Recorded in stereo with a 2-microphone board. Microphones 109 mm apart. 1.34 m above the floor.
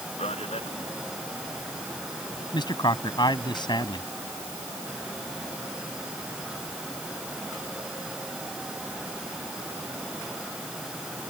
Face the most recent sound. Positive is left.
turn(degrees=40)  # may be behind; listen again after turning